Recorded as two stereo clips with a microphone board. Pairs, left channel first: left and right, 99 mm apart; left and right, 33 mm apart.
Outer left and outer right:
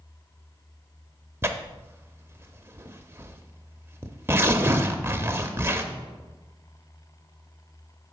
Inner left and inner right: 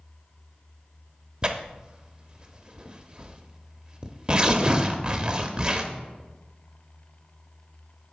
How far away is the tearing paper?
About 0.7 m.